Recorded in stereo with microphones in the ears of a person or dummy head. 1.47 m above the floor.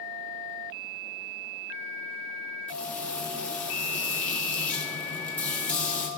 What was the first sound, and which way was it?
Frying, 10° left (ahead or behind).